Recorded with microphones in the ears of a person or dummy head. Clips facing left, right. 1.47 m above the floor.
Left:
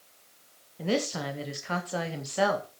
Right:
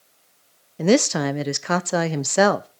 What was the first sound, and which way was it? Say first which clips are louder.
A woman speaking: right 11 dB; 75° right (ahead or behind).